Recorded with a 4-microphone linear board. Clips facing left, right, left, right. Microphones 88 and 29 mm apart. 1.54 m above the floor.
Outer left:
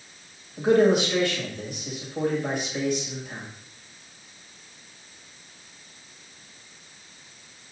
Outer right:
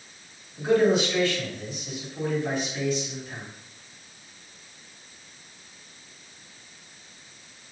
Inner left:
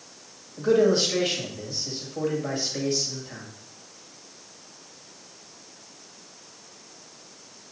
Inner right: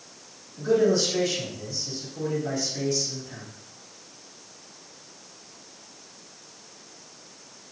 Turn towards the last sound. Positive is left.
turn(degrees=60)  # may be behind; listen again after turning